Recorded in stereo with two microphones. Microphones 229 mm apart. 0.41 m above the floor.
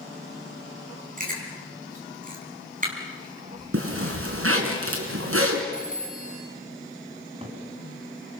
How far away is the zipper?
About 3.5 m.